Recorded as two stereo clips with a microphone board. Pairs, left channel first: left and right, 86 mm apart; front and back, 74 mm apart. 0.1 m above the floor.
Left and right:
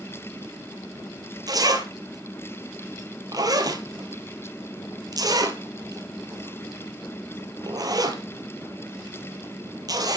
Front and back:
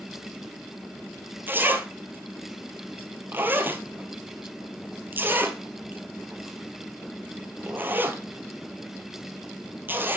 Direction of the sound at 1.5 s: 120° right.